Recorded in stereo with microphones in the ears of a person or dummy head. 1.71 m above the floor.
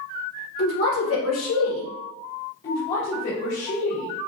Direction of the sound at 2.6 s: 35° left (ahead or behind).